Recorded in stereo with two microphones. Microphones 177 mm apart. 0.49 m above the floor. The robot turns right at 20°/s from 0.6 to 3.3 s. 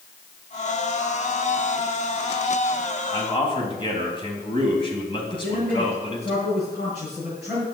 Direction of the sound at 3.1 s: 25° left (ahead or behind).